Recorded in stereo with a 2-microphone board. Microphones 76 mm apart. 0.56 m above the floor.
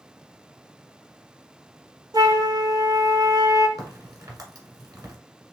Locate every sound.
2.1 s a flute: 55° right (ahead or behind), 0.6 m
3.8 s a crack: 55° right (ahead or behind), 1.4 m